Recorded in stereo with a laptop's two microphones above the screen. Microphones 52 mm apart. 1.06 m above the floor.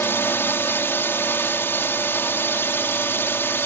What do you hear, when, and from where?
0.0 s a drone: 45° left (ahead or behind)